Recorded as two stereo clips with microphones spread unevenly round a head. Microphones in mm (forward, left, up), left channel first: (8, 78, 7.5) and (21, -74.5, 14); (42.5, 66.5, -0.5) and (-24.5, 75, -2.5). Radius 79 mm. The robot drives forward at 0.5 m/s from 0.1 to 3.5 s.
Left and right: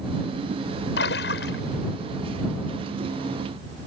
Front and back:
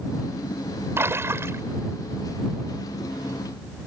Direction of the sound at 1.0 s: 120° left.